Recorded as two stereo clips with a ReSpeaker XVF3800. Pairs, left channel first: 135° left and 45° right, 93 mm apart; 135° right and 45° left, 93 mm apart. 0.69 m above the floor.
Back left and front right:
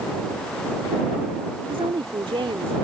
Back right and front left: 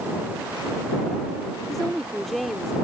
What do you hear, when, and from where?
1.7 s a woman speaking: 45° right